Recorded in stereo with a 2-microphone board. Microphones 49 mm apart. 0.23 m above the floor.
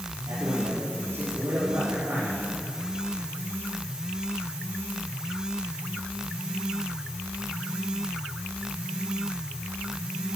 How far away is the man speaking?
About 5.5 m.